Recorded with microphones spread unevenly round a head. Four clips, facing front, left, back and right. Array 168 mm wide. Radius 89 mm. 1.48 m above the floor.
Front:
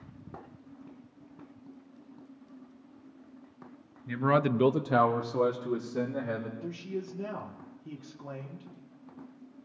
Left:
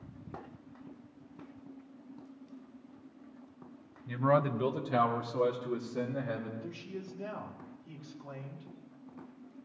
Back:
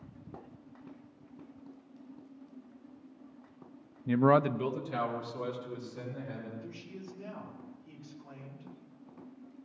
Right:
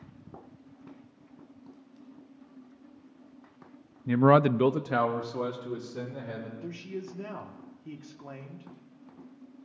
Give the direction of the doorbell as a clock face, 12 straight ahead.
I don't hear a doorbell.